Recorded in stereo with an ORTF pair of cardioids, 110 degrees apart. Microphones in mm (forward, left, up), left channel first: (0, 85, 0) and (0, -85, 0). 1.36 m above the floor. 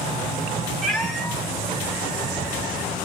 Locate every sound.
0.8 s a cat meowing: 5° left, 4.5 m; by 3.0 s 20° left, 4.5 m